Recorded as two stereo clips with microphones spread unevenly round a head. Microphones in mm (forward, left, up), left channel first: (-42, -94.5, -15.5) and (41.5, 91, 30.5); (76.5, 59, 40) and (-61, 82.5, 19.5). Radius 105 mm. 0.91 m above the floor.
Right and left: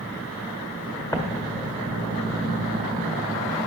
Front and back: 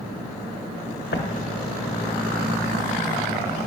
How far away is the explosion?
About 1.4 m.